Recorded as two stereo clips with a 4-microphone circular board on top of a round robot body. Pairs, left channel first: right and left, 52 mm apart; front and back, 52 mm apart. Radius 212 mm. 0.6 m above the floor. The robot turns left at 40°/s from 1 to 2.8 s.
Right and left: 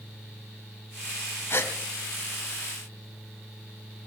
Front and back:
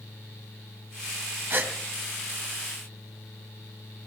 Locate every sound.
1.5 s a gasp: 130° right, 2.5 m; by 1.7 s 140° right, 2.5 m